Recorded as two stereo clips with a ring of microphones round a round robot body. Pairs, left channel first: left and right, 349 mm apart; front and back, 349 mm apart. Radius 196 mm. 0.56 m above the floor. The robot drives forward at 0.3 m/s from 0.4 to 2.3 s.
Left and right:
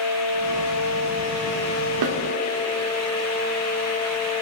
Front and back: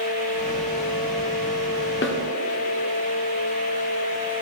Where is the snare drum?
55° right, 1.0 m; by 2.2 s 60° right, 1.0 m.